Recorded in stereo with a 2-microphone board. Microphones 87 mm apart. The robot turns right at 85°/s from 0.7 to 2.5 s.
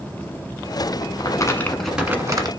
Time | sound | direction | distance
1.2 | crumpling | 125° left | 1.3 m